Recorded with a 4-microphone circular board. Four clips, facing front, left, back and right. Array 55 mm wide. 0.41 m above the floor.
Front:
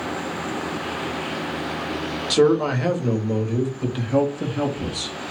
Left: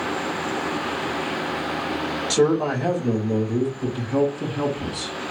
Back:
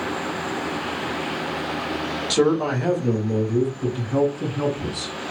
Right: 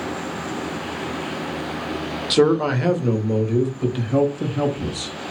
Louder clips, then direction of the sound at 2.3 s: Right 3 dB, front 2 dB; 85° right.